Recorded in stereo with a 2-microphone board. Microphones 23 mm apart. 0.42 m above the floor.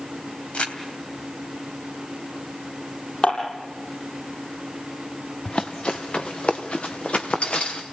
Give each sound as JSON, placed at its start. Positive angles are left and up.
{"t": 0.5, "sound": "crumpling", "side_deg": 65, "distance_m": 2.5}
{"t": 3.2, "sound": "dishes clattering", "side_deg": 50, "distance_m": 8.5}
{"t": 5.5, "sound": "running footsteps", "side_deg": 50, "distance_m": 2.0}